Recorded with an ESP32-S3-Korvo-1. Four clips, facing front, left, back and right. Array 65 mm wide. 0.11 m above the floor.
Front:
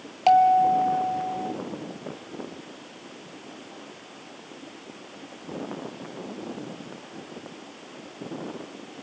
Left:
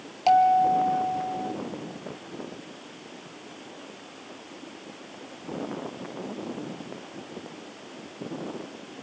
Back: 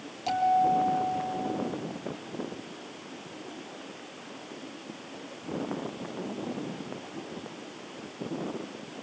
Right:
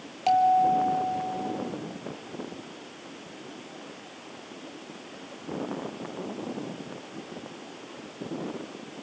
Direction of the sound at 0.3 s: 10° left.